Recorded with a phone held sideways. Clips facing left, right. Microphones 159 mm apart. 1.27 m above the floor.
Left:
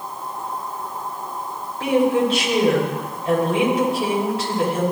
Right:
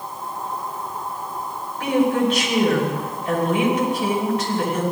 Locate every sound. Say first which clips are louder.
1.8 s a woman speaking: left 1 dB; 35° left (ahead or behind), 6 m